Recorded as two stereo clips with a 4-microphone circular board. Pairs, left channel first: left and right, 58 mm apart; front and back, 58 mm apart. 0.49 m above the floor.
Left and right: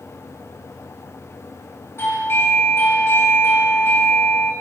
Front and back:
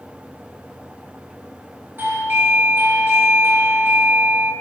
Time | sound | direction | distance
2.0 | a doorbell | 130° left | 3 m